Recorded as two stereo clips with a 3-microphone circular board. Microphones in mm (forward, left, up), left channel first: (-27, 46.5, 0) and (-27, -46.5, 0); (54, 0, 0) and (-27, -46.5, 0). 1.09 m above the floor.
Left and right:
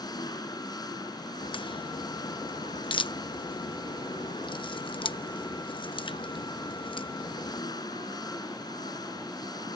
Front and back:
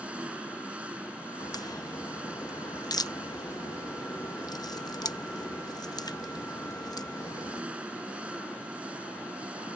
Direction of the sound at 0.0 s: 135° left.